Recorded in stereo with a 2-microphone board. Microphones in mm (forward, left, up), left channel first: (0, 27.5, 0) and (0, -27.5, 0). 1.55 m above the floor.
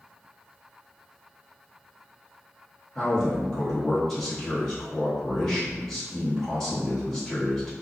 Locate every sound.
3.0 s a man speaking: 10° left (ahead or behind), 1.2 m